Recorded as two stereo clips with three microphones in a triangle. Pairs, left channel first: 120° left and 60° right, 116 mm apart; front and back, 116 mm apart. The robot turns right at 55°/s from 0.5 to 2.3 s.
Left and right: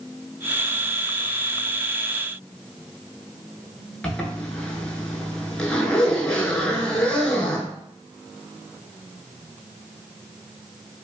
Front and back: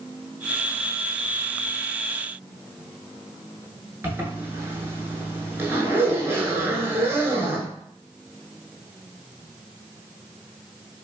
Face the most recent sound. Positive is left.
turn(degrees=-170)